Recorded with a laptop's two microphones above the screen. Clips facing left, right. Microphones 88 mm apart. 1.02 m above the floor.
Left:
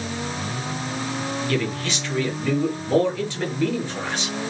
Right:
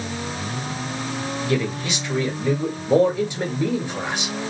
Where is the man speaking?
15° right (ahead or behind), 1.7 m.